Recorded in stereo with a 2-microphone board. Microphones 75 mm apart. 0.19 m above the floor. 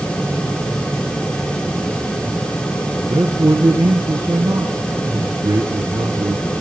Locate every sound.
3.1 s a man speaking: 60° right (ahead or behind), 2.5 m